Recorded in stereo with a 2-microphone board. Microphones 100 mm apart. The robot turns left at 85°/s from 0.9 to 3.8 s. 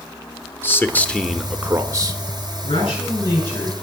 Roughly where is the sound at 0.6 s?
Ahead left.